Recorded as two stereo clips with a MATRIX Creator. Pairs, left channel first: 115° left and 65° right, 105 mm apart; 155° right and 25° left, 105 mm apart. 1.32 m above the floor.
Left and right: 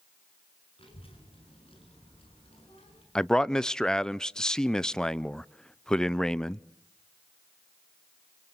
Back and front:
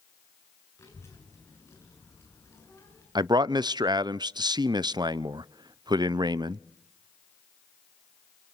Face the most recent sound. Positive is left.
turn(degrees=30)